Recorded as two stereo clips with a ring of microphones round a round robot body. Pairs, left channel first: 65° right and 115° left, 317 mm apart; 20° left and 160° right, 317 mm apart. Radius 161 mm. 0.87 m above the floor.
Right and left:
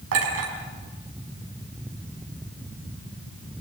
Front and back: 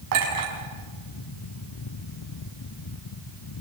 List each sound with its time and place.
0.1 s a clink: 160° left, 5.5 m